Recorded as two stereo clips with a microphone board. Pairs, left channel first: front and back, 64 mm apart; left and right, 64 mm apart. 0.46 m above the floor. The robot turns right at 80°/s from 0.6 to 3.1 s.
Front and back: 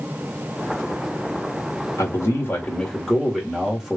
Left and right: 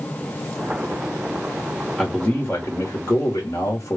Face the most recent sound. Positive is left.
turn(degrees=90)